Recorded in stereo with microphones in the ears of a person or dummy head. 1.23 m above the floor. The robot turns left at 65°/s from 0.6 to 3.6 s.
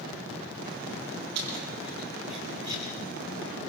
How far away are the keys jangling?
About 8.5 m.